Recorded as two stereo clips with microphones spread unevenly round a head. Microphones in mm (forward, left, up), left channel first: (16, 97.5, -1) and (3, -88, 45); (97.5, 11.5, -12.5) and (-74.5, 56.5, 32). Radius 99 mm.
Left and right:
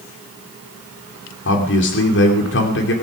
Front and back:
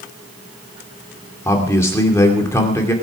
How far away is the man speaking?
About 2.5 m.